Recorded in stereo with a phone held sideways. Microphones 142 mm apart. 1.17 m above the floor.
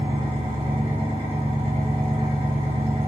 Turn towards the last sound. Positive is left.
turn(degrees=-40)  # may be behind; listen again after turning